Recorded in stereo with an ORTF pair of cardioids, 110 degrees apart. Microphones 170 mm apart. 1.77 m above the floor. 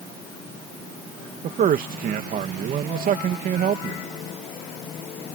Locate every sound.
1.4 s a man speaking: 60° right